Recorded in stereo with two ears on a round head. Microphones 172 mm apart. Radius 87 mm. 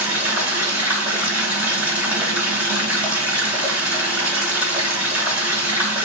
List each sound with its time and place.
0.0 s running water: 10° right (ahead or behind), 0.9 m